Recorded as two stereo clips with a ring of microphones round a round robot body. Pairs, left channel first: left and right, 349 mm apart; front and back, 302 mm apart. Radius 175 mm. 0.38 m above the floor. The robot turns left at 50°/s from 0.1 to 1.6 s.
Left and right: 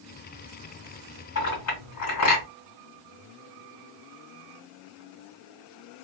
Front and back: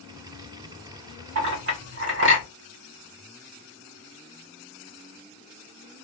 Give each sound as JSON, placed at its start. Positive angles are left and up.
{"t": 1.4, "sound": "a clink", "azimuth_deg": 140, "distance_m": 2.5}